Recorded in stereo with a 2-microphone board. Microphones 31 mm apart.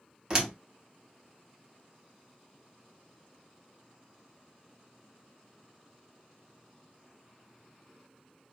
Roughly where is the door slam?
Right.